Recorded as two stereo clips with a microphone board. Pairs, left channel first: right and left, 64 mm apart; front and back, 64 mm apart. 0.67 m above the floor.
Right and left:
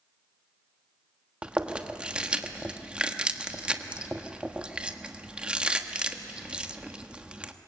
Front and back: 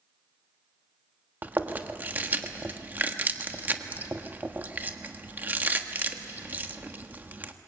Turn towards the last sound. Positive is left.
turn(degrees=145)